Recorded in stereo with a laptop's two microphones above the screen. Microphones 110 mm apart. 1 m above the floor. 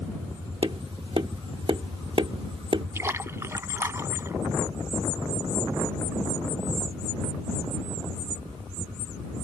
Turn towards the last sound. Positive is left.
turn(degrees=-25)  # may be behind; listen again after turning